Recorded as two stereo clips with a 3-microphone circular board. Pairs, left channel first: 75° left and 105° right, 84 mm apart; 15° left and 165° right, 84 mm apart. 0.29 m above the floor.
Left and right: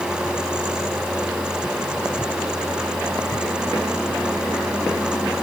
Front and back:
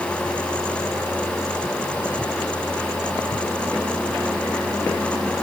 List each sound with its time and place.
Only background noise.